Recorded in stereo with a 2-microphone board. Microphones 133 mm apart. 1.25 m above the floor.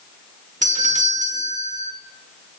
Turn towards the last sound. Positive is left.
turn(degrees=-70)  # may be behind; listen again after turning